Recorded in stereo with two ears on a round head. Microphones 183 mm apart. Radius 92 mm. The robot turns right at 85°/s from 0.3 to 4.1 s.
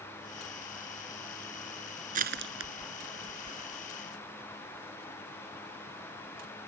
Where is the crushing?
40° right (ahead or behind); by 3.8 s centre (ahead or behind).